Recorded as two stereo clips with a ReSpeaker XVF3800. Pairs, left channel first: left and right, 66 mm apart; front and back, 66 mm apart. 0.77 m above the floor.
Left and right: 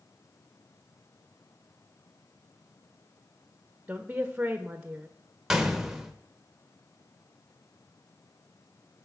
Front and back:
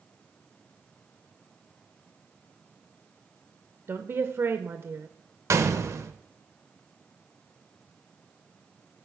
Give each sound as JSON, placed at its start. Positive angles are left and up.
{"t": 3.9, "sound": "a woman speaking", "azimuth_deg": -150, "distance_m": 0.5}
{"t": 5.5, "sound": "a gunshot", "azimuth_deg": -175, "distance_m": 0.6}